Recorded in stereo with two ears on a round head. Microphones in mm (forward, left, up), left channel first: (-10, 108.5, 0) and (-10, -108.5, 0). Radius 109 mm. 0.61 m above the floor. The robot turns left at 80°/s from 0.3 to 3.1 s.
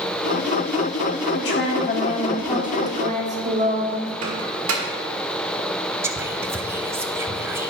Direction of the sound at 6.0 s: 10° right (ahead or behind).